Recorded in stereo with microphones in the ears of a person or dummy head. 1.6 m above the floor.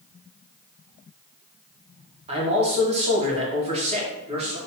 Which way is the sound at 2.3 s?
35° right (ahead or behind).